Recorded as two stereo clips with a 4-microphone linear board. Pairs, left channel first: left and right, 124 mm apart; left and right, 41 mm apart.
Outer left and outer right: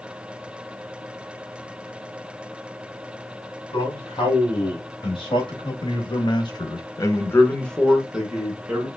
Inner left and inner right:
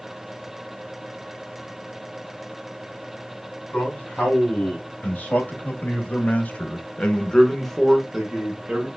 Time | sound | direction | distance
3.7 | a man speaking | 45° left (ahead or behind) | 2.5 m